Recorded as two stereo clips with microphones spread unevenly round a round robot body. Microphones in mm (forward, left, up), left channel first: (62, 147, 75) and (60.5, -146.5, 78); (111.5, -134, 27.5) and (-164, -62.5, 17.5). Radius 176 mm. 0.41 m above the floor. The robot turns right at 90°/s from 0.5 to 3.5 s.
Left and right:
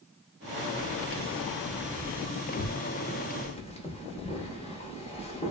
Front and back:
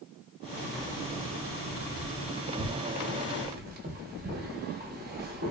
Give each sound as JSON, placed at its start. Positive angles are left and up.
{"t": 0.8, "sound": "keys jangling", "azimuth_deg": -105, "distance_m": 0.8}